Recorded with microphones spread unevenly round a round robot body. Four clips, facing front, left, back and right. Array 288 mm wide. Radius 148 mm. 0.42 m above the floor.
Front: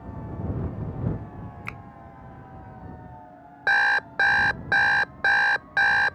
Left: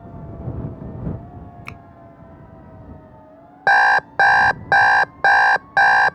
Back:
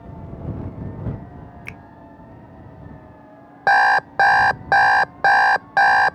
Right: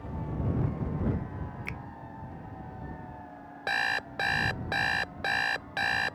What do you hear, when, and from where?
1.6 s a finger snap: 95° left
3.7 s an alarm clock: 125° left